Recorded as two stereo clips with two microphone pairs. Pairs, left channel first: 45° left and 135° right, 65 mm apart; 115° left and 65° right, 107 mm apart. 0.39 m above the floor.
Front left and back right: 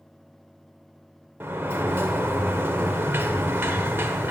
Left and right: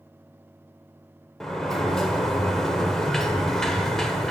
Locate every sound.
1.4 s a sliding door: 160° right, 1.0 m